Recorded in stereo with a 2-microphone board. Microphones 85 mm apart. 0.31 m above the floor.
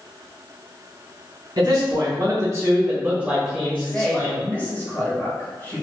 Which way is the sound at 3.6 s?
20° left (ahead or behind).